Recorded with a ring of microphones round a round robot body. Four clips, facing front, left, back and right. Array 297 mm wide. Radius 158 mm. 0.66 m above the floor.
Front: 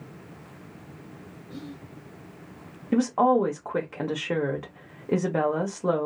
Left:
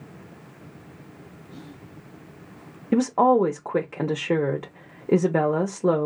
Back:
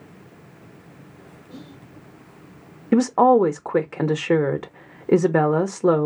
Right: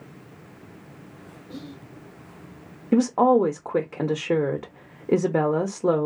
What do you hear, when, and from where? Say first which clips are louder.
1.5 s whispering: right 5 dB, front 2 dB; 90° right, 2 m
2.9 s a woman speaking: even, back 6 dB; straight behind, 0.9 m